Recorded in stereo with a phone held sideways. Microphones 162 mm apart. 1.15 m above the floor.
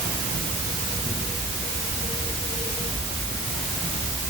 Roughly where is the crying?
No crying in this recording.